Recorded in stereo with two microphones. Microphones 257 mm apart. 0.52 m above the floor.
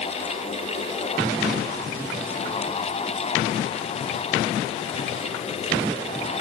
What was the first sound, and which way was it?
Only background noise.